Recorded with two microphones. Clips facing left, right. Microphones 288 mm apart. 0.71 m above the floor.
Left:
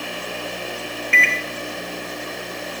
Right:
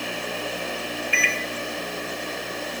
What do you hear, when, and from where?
1.1 s a microwave: 25° left (ahead or behind), 0.5 m